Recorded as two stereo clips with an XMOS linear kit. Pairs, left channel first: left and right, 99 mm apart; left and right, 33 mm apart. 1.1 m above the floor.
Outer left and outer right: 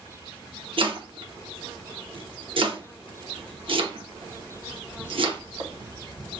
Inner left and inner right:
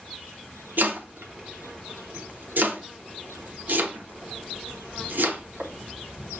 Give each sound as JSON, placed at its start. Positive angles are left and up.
{"t": 0.8, "sound": "chopping", "side_deg": -60, "distance_m": 0.8}